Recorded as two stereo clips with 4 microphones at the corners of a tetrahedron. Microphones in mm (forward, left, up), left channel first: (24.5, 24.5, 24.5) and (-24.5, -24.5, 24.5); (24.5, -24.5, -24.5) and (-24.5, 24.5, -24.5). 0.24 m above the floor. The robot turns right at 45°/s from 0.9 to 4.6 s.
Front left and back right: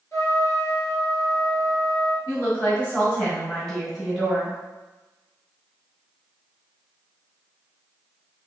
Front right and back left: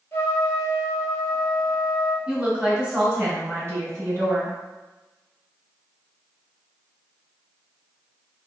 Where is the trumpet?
5° left, 0.8 m; by 2.2 s 65° left, 0.8 m.